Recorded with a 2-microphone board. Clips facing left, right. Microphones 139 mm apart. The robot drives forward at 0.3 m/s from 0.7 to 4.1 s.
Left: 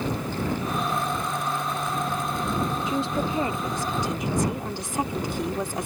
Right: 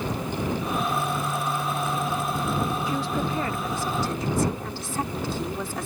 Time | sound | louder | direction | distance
2.9 | a woman speaking | left 1 dB | 20° left (ahead or behind) | ?